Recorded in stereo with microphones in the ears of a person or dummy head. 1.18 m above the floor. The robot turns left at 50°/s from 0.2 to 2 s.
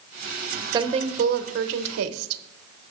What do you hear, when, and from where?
0.7 s a woman speaking: 25° right, 0.7 m; by 2.4 s 85° right, 0.7 m